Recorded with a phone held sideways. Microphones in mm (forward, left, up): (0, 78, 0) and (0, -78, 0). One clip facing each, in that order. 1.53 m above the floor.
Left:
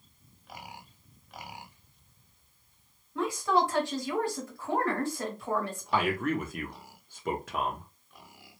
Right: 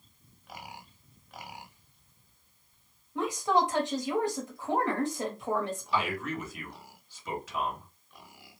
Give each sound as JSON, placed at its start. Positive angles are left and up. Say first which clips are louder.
{"t": 3.1, "sound": "a woman speaking", "louder": "even", "side_deg": -20, "distance_m": 1.0}
{"t": 5.9, "sound": "a man speaking", "louder": "left 5 dB", "side_deg": 55, "distance_m": 0.8}